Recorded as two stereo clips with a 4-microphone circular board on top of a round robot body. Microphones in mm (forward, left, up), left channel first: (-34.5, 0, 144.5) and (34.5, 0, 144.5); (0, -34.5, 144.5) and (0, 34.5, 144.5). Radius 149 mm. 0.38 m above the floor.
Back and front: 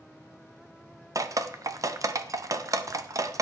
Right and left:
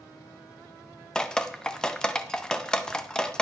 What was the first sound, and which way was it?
Dripping, 15° right.